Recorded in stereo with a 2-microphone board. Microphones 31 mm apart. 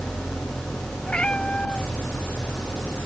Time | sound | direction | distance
0.0 | an engine running | 20° left (ahead or behind) | ?
1.1 | a cat meowing | 35° left (ahead or behind) | ?